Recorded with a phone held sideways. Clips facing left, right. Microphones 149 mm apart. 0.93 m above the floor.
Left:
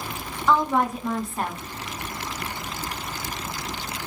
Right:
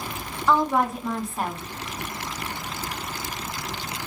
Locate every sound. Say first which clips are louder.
0.5 s a woman speaking: even; 5° right (ahead or behind), 0.9 m